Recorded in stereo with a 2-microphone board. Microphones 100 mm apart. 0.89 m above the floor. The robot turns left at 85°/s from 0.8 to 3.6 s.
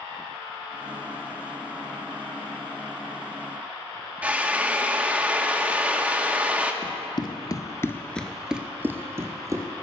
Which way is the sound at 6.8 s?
50° left (ahead or behind).